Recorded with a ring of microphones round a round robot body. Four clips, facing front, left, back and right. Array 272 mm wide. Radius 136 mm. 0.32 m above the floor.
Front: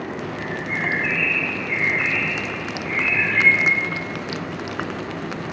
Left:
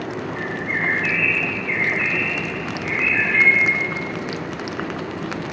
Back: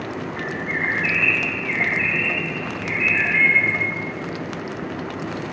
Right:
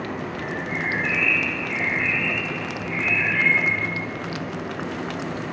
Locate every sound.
0.4 s a bird: 100° left, 3 m